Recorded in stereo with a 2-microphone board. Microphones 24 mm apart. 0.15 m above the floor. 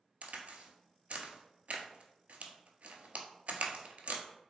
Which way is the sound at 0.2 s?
75° right (ahead or behind).